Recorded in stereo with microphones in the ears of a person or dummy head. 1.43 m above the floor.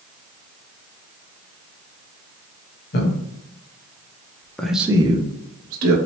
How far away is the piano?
No piano in this recording.